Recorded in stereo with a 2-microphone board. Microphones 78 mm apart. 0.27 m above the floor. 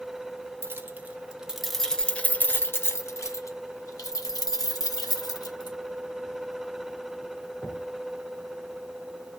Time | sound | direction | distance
0.6 | keys jangling | 30° right (ahead or behind) | 1.0 m